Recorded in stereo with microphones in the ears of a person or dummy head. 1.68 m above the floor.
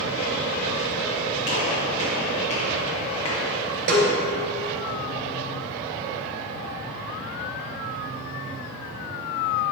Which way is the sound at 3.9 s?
60° right (ahead or behind).